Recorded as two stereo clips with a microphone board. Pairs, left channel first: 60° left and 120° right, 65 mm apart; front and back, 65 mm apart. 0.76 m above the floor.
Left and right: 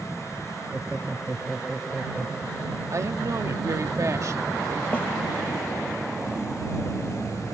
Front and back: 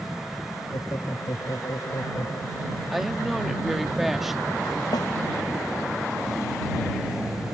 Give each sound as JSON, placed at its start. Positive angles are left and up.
{"t": 0.7, "sound": "laughter", "azimuth_deg": -35}
{"t": 2.9, "sound": "a woman speaking", "azimuth_deg": -95}
{"t": 4.9, "sound": "a snare drum", "azimuth_deg": -10}